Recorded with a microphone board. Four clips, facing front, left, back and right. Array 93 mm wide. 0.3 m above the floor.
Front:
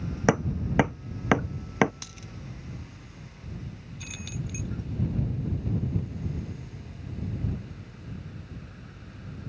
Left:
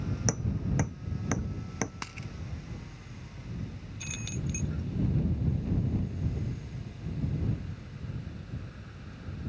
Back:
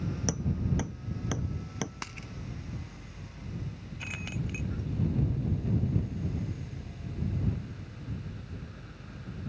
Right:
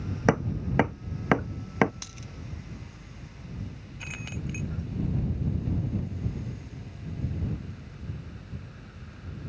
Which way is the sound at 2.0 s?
135° left.